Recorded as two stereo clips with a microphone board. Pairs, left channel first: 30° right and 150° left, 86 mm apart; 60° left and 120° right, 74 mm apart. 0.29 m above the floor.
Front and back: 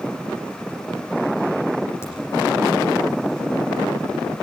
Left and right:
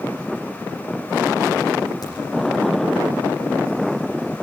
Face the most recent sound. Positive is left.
turn(degrees=30)